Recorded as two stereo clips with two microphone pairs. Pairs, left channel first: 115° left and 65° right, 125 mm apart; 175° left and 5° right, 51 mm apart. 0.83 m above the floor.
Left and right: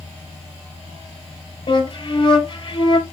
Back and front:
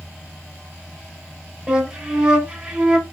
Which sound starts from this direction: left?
A flute, at 1.7 s.